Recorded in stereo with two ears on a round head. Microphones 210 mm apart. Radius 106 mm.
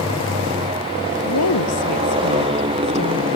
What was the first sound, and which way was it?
A motorcycle, 20° right (ahead or behind).